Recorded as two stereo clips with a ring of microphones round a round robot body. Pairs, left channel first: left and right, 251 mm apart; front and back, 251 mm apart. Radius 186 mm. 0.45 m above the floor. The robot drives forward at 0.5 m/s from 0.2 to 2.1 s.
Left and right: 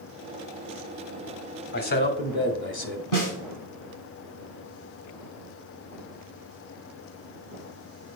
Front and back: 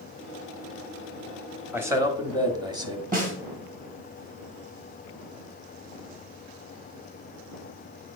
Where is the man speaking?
100° left, 1.3 m; by 3.0 s 115° left, 1.3 m.